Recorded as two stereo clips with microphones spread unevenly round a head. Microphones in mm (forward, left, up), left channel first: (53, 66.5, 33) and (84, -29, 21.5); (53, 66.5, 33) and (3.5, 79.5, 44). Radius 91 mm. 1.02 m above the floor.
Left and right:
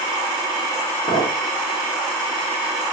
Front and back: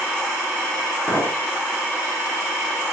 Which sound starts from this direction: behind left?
A clink, at 1.1 s.